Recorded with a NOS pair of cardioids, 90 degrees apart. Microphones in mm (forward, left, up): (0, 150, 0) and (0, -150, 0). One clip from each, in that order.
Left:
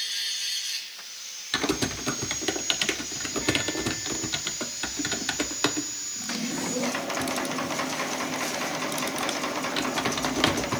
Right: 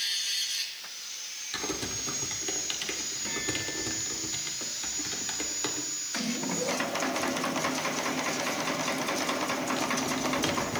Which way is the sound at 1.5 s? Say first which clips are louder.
Left 7 dB; 55° left.